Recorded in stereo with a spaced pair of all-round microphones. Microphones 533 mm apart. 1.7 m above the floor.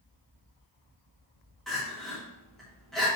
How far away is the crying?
About 2 m.